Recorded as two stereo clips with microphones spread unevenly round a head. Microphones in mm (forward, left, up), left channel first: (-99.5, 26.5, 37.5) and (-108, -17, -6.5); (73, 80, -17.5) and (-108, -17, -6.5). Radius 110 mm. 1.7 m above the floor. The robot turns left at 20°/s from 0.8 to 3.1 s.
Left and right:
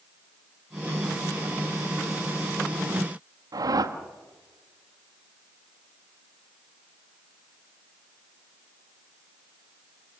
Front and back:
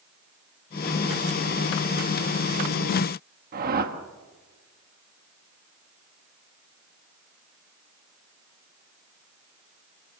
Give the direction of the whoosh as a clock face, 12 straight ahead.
4 o'clock.